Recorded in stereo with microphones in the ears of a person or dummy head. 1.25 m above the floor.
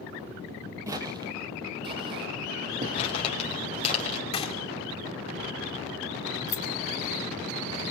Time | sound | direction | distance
0.9 | footsteps | 25° right (ahead or behind) | 2.0 m
3.0 | crumpling | 25° left (ahead or behind) | 5.5 m
4.3 | a gunshot | 25° left (ahead or behind) | 2.5 m
6.5 | keys jangling | 15° left (ahead or behind) | 6 m